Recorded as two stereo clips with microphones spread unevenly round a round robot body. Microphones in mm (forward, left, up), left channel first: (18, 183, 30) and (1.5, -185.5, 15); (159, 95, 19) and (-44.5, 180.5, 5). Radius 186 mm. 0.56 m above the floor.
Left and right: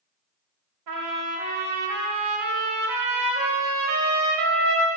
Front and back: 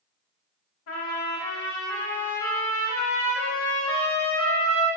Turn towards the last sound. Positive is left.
turn(degrees=-50)